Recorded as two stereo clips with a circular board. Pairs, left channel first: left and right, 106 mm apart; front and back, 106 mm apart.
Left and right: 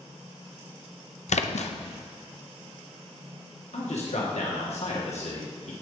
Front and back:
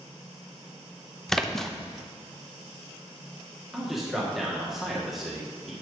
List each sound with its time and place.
1.3 s a splash: 85° left, 0.6 m
3.7 s a man speaking: 95° left, 1.5 m